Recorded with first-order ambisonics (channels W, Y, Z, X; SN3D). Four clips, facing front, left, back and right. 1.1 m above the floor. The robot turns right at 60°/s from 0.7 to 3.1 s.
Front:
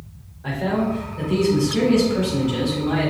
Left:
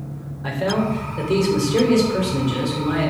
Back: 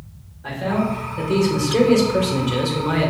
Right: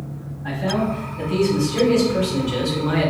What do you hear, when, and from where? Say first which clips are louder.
0.4 s a man speaking: left 1 dB, even; 85° left, 3 m; by 3.1 s 130° right, 3 m